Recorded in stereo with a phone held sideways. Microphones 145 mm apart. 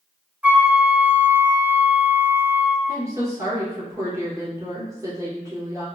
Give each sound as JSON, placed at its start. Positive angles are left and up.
{"t": 0.4, "sound": "a flute", "side_deg": -10, "distance_m": 0.6}
{"t": 2.9, "sound": "a woman speaking", "side_deg": -20, "distance_m": 1.1}